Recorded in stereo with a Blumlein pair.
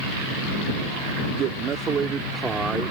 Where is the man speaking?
35° right; by 2.9 s 10° right.